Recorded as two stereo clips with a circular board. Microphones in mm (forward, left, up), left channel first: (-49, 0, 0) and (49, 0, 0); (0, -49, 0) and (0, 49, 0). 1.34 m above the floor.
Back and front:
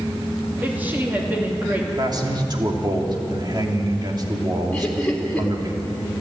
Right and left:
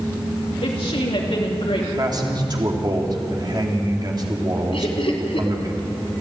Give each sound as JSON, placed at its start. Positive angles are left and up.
{"t": 0.6, "sound": "a woman speaking", "azimuth_deg": -75, "distance_m": 3.0}
{"t": 2.0, "sound": "a man speaking", "azimuth_deg": 45, "distance_m": 2.5}
{"t": 4.7, "sound": "laughter", "azimuth_deg": -100, "distance_m": 4.0}